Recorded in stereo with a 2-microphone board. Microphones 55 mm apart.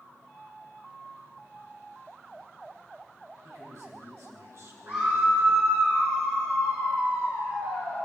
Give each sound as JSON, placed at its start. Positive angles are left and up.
{"t": 3.4, "sound": "a man speaking", "side_deg": -65, "distance_m": 5.0}
{"t": 4.9, "sound": "a scream", "side_deg": -45, "distance_m": 6.0}